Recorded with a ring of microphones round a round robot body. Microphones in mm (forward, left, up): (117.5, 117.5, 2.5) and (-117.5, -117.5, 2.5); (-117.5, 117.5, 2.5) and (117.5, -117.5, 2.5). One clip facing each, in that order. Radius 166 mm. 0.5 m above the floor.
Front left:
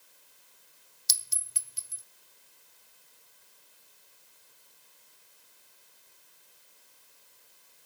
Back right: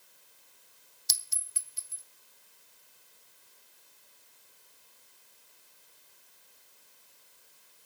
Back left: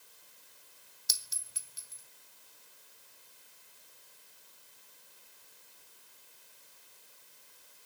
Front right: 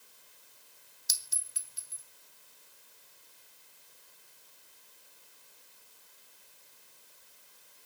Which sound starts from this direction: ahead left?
A clink, at 1.1 s.